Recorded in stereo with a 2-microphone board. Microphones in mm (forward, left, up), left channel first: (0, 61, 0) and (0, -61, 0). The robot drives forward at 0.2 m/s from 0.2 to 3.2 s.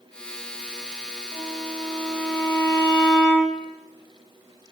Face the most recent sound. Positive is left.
turn(degrees=45)  # may be behind; listen again after turning